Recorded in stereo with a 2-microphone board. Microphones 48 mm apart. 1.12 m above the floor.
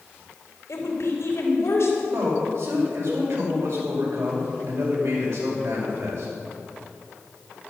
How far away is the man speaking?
About 6 m.